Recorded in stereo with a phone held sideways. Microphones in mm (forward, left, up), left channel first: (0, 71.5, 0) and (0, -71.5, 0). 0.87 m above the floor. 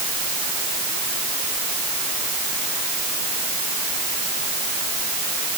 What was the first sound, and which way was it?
Only background noise.